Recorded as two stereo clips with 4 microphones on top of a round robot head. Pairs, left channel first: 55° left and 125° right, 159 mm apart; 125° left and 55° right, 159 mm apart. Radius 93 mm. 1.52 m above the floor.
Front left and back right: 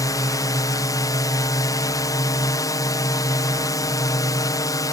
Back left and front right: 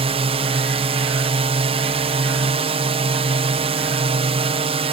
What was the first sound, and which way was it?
A drone, 10° right.